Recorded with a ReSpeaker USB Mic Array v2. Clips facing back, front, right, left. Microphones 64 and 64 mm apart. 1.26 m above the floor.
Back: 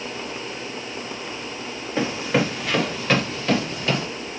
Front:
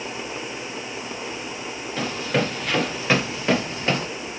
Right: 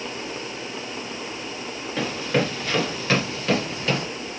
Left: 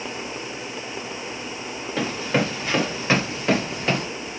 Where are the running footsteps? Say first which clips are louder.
Back 2 dB, even; 160° left, 1.3 m; by 4.1 s 40° left, 1.6 m.